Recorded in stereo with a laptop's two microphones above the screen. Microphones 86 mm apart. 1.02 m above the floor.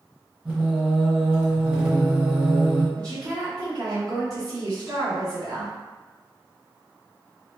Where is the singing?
15° right (ahead or behind), 1.2 m.